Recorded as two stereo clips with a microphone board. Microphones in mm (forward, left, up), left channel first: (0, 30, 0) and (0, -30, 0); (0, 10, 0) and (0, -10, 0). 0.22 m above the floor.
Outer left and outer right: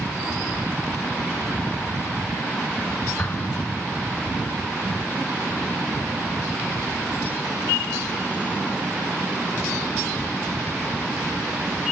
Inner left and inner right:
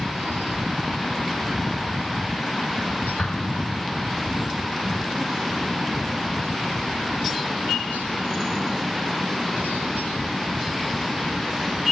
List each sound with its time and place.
3.2 s an explosion: 35° left (ahead or behind), 0.7 m